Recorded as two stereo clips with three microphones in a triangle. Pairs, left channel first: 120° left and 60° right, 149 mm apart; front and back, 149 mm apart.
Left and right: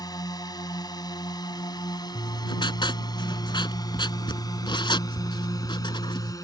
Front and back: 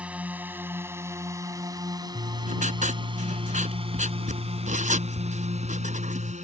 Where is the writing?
170° left.